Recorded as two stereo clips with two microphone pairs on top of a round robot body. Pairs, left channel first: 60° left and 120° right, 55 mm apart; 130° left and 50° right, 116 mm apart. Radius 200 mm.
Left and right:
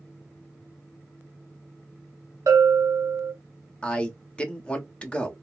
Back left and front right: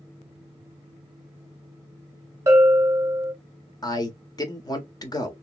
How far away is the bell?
About 1.1 m.